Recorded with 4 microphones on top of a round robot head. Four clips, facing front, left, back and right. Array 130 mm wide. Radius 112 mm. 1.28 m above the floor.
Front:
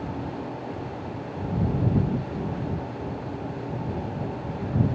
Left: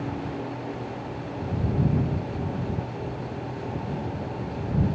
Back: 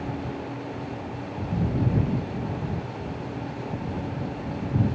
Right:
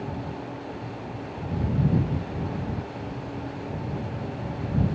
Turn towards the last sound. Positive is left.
No sound to turn to.